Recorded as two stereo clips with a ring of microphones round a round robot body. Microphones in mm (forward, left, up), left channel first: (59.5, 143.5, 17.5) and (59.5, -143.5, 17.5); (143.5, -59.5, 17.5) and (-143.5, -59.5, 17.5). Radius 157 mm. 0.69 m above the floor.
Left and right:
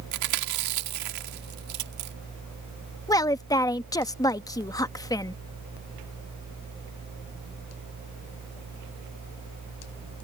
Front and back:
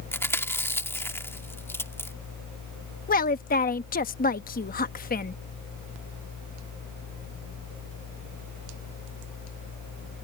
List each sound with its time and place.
0.1 s chewing: 80° right
3.1 s a woman speaking: 25° left